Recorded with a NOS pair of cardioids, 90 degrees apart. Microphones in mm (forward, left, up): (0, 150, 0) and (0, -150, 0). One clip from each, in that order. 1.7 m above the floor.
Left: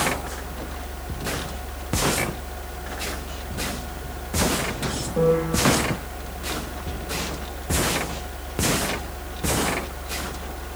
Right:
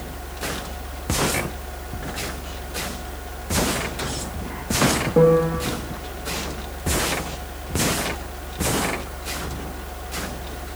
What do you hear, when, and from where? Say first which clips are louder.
5.2 s a piano: right 4 dB; 50° right, 0.8 m